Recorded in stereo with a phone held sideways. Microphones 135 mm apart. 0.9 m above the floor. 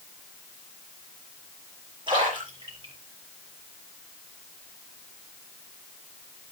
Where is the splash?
40° right (ahead or behind), 8 m.